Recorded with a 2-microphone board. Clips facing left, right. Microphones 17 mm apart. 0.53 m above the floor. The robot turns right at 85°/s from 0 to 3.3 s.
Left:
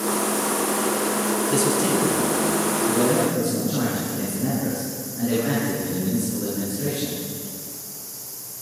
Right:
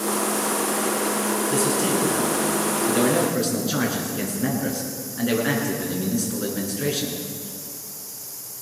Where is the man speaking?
165° left, 8.5 m; by 7.2 s 45° right, 8.5 m.